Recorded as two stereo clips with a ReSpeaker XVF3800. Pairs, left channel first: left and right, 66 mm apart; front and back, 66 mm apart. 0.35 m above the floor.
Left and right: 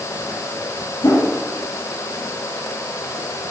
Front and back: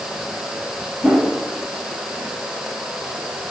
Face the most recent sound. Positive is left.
turn(degrees=105)